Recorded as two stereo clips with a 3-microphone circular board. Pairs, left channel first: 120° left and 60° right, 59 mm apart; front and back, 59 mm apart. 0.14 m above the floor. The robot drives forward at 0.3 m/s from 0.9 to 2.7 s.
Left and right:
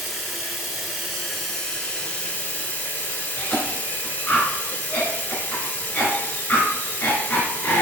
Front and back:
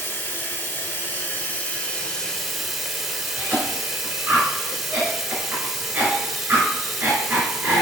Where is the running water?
25° left, 0.7 m; by 7.8 s 100° left, 0.5 m.